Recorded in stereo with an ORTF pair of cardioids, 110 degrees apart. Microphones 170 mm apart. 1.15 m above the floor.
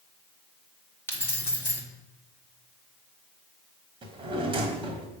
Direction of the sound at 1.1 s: 10° left.